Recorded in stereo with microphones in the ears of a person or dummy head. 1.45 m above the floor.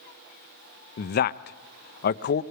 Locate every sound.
1.0 s a man speaking: 50° left (ahead or behind), 0.5 m